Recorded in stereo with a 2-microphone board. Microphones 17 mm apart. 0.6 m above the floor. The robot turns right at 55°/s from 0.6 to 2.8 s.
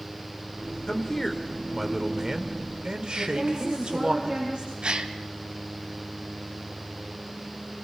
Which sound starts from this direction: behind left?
A man speaking, at 0.9 s.